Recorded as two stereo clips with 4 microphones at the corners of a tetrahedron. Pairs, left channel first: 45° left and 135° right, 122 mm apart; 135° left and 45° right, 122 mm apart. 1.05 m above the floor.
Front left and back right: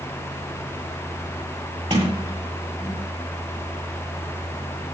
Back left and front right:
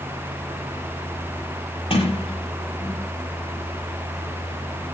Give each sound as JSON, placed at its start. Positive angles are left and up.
{"t": 1.9, "sound": "a sliding door", "azimuth_deg": 180, "distance_m": 8.5}